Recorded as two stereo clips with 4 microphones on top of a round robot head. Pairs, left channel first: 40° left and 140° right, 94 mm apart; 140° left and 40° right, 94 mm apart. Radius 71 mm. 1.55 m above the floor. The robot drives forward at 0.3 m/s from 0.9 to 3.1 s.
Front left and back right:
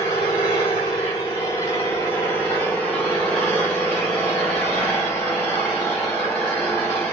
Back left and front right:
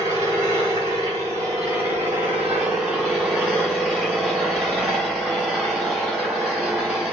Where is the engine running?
Straight ahead, 1.3 m; by 7.1 s 25° left, 1.0 m.